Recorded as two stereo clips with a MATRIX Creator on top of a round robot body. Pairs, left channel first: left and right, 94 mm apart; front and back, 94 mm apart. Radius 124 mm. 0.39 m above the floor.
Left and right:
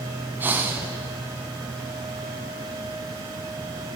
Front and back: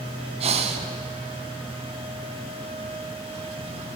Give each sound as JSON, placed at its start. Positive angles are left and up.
{"t": 0.4, "sound": "breathing", "azimuth_deg": -165, "distance_m": 0.5}